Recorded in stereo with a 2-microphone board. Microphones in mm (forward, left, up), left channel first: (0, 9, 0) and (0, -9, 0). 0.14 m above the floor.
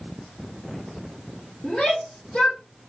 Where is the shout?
75° left (ahead or behind), 4.5 m.